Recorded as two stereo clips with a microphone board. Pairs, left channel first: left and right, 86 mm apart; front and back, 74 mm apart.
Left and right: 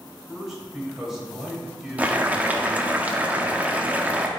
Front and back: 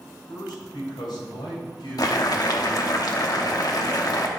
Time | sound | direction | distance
0.3 | a man speaking | 5° right | 3 m
2.0 | boiling | 20° right | 0.8 m